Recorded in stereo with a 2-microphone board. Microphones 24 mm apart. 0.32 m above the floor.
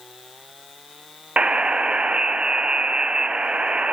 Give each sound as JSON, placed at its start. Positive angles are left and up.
{"t": 1.4, "sound": "a buzzer", "side_deg": -65, "distance_m": 1.0}